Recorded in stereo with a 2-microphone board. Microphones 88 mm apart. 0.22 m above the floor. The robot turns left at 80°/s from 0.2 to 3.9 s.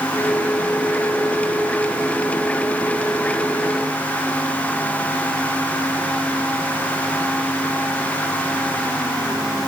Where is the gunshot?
No gunshot in this recording.